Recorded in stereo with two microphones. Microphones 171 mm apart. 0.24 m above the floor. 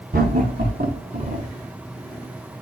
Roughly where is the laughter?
Right.